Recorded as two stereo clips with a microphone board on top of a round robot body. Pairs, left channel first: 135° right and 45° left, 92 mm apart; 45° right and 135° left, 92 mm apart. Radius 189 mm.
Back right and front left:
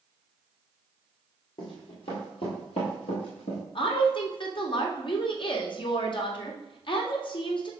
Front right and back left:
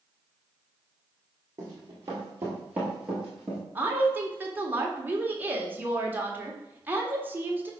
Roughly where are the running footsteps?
Behind.